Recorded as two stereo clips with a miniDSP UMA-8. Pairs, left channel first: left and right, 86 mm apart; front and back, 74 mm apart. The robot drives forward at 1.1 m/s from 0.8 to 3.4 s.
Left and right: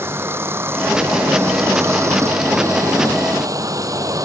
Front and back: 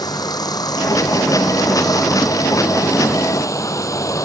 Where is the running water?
30° right; by 4.3 s 45° right.